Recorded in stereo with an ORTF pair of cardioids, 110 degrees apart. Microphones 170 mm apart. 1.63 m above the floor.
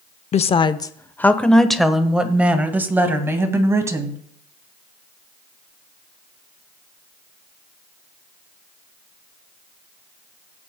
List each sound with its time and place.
0.3 s a woman speaking: 40° left, 0.7 m; by 4.2 s 20° right, 2.5 m